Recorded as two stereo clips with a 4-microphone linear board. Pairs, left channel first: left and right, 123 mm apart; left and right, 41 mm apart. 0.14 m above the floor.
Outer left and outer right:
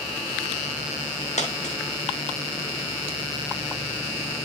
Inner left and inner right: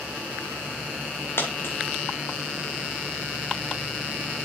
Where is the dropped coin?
75° left (ahead or behind), 2 m.